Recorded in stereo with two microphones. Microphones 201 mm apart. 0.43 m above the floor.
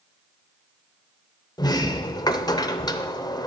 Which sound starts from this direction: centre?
A sliding door, at 1.6 s.